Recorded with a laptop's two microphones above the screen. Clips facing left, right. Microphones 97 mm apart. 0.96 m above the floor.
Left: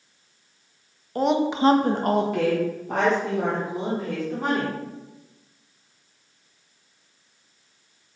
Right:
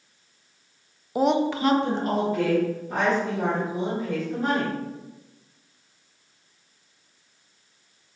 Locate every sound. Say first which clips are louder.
1.1 s a woman speaking: even; 10° right (ahead or behind), 0.5 m; by 4.8 s 80° left, 2.5 m